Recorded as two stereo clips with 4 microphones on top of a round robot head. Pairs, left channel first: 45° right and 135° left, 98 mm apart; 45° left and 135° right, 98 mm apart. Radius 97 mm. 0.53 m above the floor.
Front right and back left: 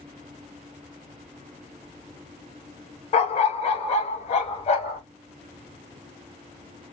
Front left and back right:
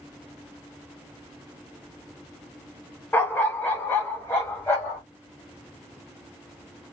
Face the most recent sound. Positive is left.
turn(degrees=-30)